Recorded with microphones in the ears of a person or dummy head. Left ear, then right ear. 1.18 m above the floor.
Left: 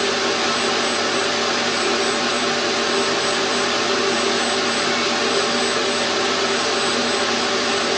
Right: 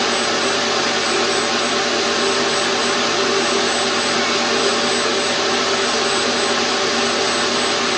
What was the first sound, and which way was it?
Only background noise.